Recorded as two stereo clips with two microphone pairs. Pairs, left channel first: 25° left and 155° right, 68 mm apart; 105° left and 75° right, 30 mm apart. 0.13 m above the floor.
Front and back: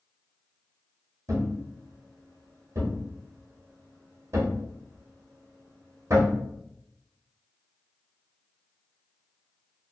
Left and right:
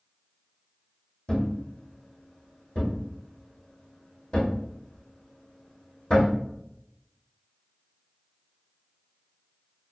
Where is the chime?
I don't hear a chime.